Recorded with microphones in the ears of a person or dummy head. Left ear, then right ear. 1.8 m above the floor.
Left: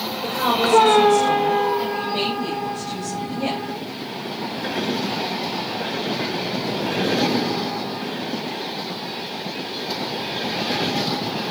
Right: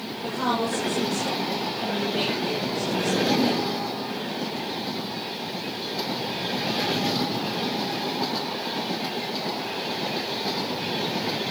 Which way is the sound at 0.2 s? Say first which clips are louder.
Left 6 dB; 75° left (ahead or behind).